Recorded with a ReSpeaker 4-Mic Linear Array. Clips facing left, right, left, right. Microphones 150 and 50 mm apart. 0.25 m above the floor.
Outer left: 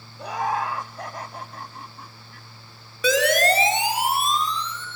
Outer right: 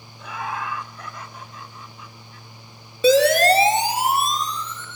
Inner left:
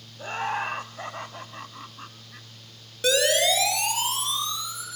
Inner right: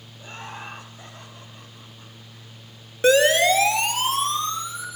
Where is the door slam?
No door slam in this recording.